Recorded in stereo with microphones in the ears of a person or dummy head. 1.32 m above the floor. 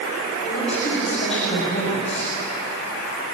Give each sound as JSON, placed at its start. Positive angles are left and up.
{"t": 0.4, "sound": "a woman speaking", "side_deg": 35, "distance_m": 7.5}